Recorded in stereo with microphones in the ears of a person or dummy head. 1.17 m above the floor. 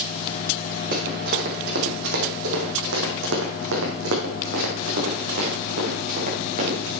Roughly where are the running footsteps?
Right.